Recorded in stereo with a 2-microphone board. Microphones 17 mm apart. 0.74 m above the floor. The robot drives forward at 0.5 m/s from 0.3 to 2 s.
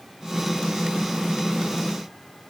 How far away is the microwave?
No microwave in this recording.